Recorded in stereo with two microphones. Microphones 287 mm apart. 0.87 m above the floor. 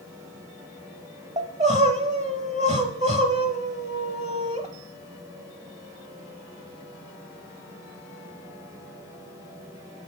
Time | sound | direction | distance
1.4 | crying | 25° right (ahead or behind) | 0.8 m